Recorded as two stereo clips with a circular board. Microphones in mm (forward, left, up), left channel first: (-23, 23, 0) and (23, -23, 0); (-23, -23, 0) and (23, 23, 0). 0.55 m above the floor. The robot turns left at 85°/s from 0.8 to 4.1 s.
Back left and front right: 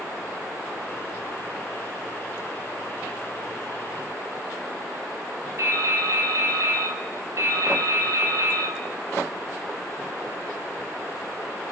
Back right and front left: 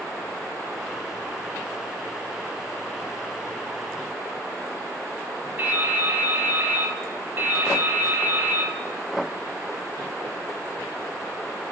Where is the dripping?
15° right, 0.9 m.